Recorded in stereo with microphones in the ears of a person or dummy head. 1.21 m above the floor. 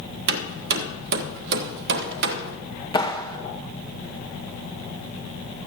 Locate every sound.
0.3 s hammering: 60° right (ahead or behind), 1.2 m
2.9 s a clap: 25° left (ahead or behind), 1.0 m